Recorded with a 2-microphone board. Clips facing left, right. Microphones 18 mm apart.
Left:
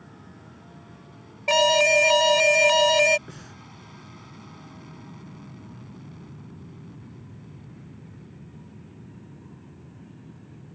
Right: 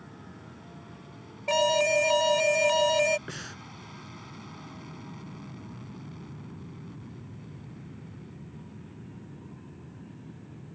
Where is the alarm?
35° left (ahead or behind).